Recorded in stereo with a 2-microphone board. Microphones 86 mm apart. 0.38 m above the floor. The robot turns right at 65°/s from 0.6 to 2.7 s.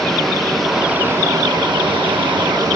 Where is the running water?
175° left, 4.5 m; by 2.8 s 50° right, 4.5 m.